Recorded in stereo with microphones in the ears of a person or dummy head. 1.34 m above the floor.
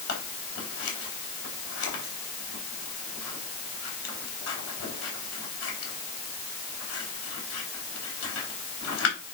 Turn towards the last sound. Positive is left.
turn(degrees=85)